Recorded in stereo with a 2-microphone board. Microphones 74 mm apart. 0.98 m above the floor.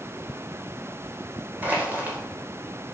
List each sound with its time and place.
1.6 s crushing: 25° right (ahead or behind), 4 m